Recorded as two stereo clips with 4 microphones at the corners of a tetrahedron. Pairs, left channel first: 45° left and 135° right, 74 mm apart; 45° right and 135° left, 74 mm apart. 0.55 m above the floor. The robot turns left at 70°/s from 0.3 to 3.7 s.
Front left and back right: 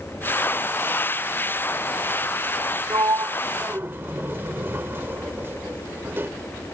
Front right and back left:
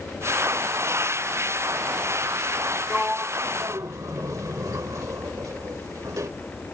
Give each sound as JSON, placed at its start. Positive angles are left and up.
{"t": 2.9, "sound": "a sliding door", "azimuth_deg": -135}